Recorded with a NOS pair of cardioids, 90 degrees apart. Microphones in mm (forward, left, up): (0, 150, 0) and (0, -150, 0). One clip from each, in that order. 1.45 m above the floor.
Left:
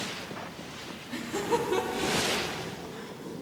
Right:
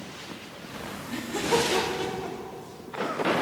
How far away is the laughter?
About 4 m.